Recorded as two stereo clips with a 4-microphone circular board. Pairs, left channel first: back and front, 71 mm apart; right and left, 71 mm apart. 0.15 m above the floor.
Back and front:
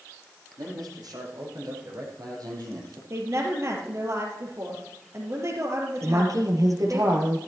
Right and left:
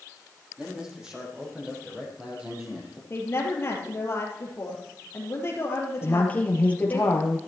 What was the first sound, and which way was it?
A man speaking, 10° left.